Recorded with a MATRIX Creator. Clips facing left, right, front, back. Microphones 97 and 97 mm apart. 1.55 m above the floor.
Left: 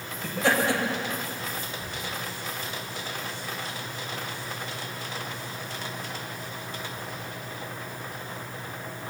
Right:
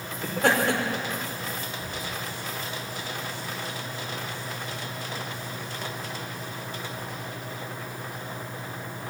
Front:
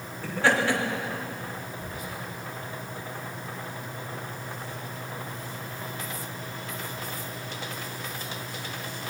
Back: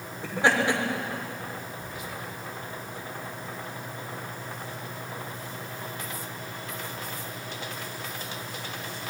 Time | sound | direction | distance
0.2 | laughter | 110° right | 5 m
1.8 | whispering | 45° right | 5.5 m